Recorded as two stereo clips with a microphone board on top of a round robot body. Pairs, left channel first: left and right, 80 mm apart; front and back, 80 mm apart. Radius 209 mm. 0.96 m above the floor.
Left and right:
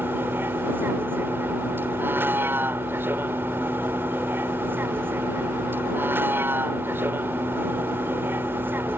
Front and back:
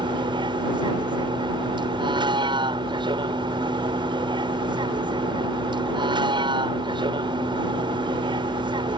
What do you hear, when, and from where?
0.0 s a vehicle: 155° right